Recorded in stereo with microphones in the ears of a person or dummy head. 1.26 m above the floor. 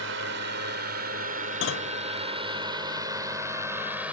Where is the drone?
65° right (ahead or behind); by 4.1 s 5° right (ahead or behind).